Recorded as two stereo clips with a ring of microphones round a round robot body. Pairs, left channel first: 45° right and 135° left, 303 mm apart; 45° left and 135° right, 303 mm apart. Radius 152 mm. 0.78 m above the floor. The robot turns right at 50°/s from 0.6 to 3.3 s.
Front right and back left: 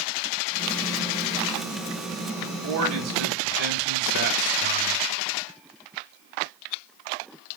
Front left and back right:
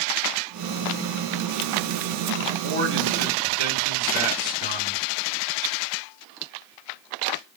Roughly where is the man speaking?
Behind.